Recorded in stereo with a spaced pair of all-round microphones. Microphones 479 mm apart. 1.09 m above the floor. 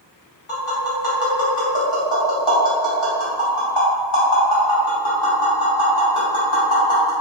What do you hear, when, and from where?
0.5 s tapping: 85° left, 1.1 m